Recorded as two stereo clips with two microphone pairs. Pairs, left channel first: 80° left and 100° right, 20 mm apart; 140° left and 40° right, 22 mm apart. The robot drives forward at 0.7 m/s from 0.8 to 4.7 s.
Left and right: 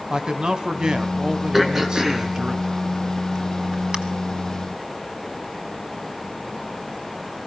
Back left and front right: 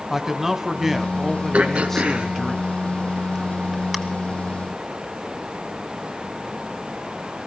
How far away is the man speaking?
About 1.2 m.